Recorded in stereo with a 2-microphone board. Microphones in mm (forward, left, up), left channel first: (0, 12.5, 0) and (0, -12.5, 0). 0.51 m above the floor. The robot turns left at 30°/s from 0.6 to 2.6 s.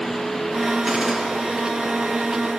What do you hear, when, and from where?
0.9 s a gunshot: 35° right (ahead or behind), 5.5 m; by 1.2 s 25° right (ahead or behind), 5.5 m